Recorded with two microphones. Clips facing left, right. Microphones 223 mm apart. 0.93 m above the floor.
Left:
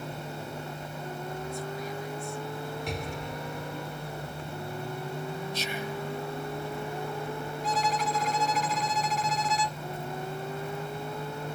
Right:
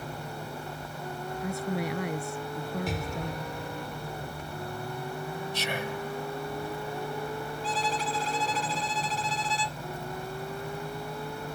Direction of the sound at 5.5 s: 75° right (ahead or behind).